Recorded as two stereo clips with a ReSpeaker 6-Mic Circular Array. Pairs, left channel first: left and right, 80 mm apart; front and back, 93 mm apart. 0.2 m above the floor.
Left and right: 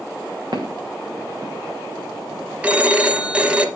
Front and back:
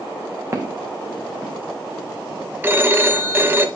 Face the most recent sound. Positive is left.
turn(degrees=-145)